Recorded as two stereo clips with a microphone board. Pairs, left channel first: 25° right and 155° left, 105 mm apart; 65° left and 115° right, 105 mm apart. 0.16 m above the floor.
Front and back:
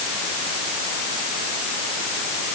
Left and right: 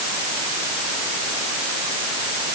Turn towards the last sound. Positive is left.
No sound to turn to.